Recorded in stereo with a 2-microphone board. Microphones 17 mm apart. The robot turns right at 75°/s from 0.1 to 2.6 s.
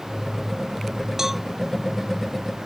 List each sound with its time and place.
1.2 s a cowbell: 20° right (ahead or behind); by 1.4 s 5° right (ahead or behind)